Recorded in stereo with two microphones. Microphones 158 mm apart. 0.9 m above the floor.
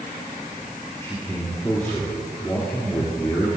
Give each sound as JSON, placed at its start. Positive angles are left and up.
{"t": 1.0, "sound": "a man speaking", "side_deg": 20, "distance_m": 2.5}